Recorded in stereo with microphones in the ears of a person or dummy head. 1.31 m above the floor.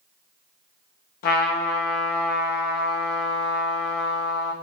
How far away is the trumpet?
About 1.0 m.